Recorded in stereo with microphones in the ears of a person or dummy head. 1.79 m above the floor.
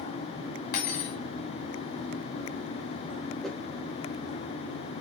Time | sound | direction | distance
0.7 | cutlery clinking | 60° left (ahead or behind) | 2.5 m
3.4 | a whoosh | 5° left (ahead or behind) | 1.3 m